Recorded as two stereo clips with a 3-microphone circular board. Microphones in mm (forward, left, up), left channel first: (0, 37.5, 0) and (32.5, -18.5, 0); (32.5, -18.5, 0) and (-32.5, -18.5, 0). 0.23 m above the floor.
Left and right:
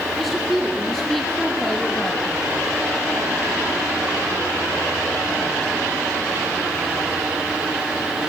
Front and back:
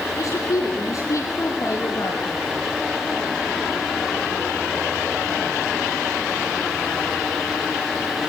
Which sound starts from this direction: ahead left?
A woman speaking, at 0.2 s.